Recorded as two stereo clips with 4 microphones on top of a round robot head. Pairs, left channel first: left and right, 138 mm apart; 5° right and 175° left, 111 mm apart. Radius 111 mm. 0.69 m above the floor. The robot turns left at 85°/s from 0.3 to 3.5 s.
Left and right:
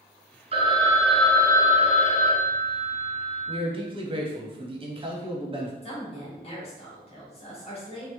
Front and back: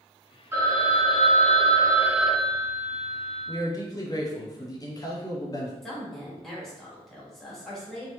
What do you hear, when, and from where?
0.5 s a phone ringing: 125° right, 0.6 m; by 3.6 s 15° right, 0.6 m
3.5 s a man speaking: 50° right, 0.7 m; by 5.7 s 55° right, 0.7 m
5.8 s a woman speaking: 80° left, 1.4 m